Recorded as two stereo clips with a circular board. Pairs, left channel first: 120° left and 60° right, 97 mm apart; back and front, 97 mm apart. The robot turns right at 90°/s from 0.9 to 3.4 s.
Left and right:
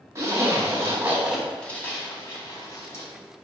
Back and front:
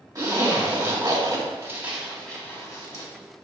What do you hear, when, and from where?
0.1 s a zipper: 20° right, 1.9 m; by 3.0 s 175° left, 1.9 m